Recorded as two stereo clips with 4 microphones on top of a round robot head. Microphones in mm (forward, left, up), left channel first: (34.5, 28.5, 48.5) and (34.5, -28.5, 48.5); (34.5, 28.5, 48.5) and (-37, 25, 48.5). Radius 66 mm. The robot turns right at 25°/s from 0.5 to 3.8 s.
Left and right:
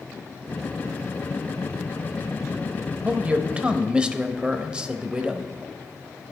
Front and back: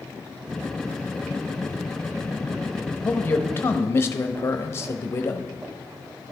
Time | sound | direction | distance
3.0 | a man speaking | 50° right | 0.9 m